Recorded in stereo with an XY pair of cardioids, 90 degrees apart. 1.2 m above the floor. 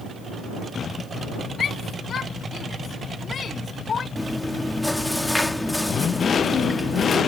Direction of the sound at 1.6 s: 60° left.